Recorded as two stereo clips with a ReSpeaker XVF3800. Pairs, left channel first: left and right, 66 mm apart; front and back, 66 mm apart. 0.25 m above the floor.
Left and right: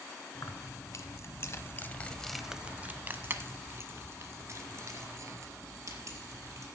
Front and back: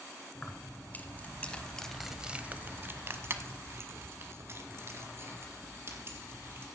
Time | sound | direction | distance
0.3 | keys jangling | 60° left | 1.7 m